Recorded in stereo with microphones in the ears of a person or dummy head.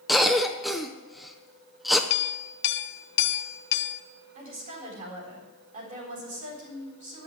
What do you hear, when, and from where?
0.1 s a cough: centre (ahead or behind), 0.7 m
2.1 s a clink: 65° left (ahead or behind), 0.8 m
4.3 s a woman speaking: 45° right (ahead or behind), 4 m